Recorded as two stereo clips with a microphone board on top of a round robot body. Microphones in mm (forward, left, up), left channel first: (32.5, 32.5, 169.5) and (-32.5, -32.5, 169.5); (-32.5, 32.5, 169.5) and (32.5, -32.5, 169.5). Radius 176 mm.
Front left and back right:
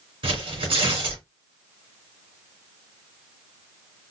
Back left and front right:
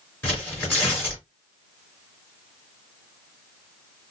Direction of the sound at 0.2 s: 155° right.